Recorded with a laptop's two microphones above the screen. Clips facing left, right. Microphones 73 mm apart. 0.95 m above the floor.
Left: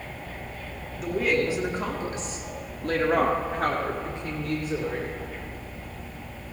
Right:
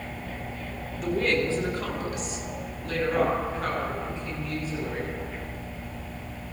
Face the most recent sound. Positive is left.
turn(degrees=70)  # may be behind; listen again after turning